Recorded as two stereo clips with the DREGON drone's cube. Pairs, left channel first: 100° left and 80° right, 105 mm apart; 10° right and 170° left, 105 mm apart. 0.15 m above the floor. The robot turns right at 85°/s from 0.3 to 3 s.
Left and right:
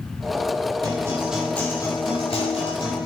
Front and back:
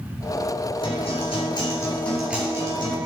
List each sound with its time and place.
0.8 s a guitar: 35° right, 3.5 m; by 3.1 s 145° left, 3.5 m